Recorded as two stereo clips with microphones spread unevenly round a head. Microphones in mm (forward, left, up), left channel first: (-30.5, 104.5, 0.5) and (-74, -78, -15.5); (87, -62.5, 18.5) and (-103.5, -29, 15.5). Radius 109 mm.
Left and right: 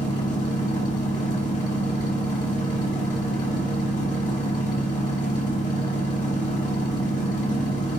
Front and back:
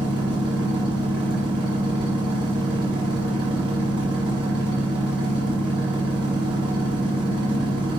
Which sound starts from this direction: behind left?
A machine running, at 0.0 s.